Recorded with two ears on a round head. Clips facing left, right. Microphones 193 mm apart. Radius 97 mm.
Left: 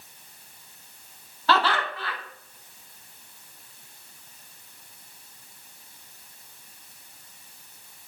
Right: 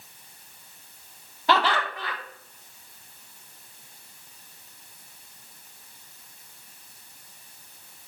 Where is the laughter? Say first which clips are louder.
Even; 15° right (ahead or behind), 0.6 m.